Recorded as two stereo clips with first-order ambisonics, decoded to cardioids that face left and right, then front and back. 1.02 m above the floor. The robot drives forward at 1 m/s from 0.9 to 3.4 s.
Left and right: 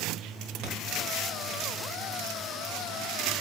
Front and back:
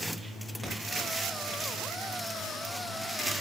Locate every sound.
0.6 s a thud: 100° right, 1.2 m